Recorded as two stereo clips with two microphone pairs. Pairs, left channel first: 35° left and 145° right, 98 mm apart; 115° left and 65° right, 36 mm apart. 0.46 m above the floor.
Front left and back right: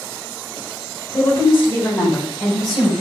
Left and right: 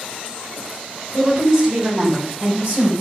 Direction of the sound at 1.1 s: 5° right.